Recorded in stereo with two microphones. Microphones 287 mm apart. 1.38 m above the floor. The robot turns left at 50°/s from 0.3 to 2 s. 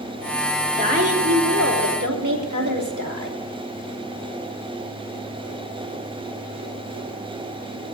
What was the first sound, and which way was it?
A woman speaking, 20° right.